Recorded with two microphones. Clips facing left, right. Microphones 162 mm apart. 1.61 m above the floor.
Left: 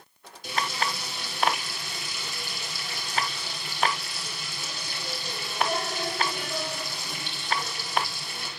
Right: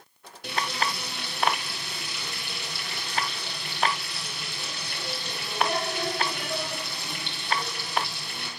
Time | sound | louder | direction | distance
0.4 | frying | even | 60° right (ahead or behind) | 7 m